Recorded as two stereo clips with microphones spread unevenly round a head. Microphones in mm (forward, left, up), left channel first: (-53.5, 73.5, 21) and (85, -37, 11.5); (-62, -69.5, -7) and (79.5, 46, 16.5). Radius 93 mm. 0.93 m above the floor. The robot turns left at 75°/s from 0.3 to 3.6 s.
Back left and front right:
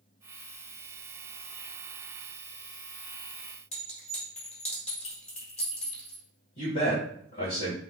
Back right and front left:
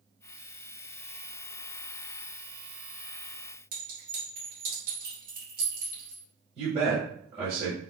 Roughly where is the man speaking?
Left.